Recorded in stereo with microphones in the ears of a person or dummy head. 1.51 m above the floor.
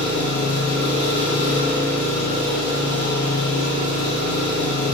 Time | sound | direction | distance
0.0 | an engine running | 55° left (ahead or behind) | 2.5 m